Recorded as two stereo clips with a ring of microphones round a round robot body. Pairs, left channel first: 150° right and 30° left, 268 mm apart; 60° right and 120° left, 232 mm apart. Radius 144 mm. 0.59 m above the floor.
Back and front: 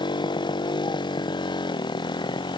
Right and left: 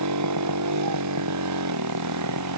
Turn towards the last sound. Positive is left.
turn(degrees=135)